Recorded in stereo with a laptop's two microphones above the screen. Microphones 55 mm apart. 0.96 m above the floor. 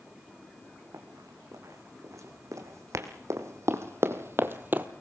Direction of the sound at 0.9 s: 75° right (ahead or behind).